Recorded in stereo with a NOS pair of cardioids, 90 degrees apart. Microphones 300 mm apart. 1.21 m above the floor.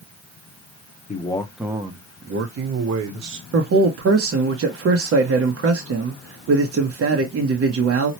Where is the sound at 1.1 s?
25° left, 1.0 m; by 3.4 s 75° right, 1.6 m.